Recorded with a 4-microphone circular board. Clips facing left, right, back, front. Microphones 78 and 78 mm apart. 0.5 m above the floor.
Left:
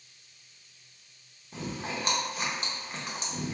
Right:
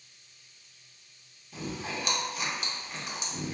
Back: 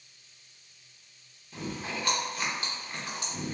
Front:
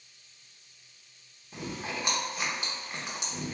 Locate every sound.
1.5 s chewing: 65° left, 0.9 m